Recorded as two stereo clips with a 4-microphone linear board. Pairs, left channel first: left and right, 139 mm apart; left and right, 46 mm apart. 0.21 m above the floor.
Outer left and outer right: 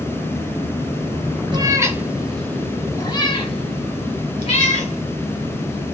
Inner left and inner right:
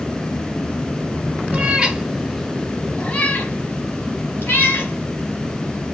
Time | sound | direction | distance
1.5 | a cat meowing | 30° right (ahead or behind) | 0.7 m